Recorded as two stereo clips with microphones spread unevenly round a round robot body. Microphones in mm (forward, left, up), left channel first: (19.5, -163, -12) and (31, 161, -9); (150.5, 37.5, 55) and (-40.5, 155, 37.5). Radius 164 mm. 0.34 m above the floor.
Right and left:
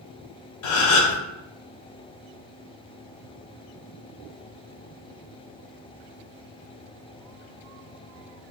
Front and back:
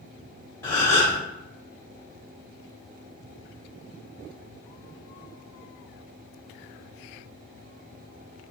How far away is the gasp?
About 0.5 m.